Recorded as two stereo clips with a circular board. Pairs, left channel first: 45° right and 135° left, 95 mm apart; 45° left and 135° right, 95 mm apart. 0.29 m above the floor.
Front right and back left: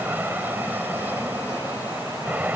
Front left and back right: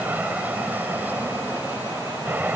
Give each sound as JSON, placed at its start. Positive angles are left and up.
{"t": 0.0, "sound": "an aircraft", "azimuth_deg": 175}